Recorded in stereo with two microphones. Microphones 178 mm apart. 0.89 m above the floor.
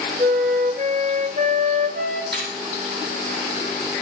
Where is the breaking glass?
75° right (ahead or behind), 8 m.